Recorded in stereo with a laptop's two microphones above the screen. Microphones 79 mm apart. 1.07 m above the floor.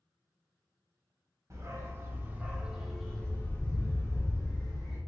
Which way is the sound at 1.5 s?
40° right (ahead or behind).